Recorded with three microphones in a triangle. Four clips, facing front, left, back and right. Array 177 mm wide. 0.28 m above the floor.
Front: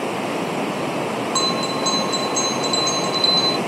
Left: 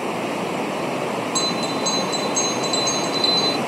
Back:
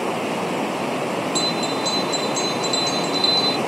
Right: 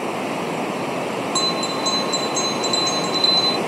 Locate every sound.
1.4 s a bell: 25° right